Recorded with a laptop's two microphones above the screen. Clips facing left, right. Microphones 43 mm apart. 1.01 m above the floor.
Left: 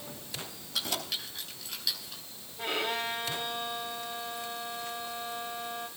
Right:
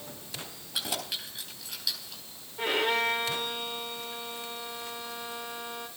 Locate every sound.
0.7 s keys jangling: 20° right (ahead or behind), 4 m; by 2.2 s centre (ahead or behind), 4 m
2.6 s a violin: 75° right (ahead or behind), 3.5 m